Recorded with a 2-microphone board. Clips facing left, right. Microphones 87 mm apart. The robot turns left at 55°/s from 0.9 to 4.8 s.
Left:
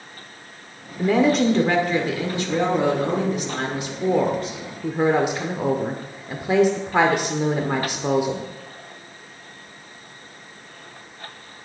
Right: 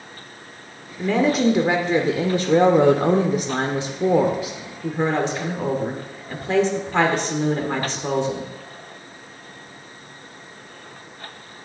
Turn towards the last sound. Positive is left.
turn(degrees=165)